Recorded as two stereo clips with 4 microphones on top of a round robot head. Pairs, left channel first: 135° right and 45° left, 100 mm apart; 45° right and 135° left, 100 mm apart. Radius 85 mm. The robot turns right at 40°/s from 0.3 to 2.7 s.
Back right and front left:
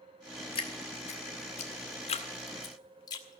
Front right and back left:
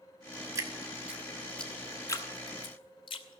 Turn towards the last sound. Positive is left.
turn(degrees=-85)